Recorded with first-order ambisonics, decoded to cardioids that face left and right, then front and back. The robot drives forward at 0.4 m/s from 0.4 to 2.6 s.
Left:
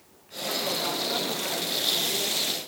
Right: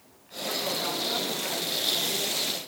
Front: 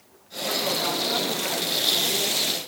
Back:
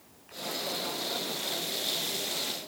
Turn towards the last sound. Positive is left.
No sound to turn to.